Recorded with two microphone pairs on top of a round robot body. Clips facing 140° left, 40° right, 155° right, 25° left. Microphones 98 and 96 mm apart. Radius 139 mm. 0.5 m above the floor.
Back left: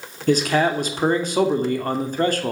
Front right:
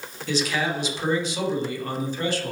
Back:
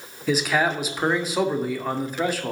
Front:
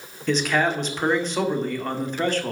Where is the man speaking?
120° left, 2 m.